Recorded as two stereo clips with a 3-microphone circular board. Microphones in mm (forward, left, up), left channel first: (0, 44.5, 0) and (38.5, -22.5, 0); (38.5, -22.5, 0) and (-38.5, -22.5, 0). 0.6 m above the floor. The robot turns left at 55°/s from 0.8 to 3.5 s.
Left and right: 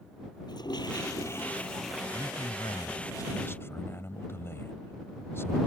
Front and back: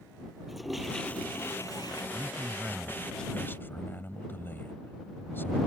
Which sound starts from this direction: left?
A toilet flushing, at 0.5 s.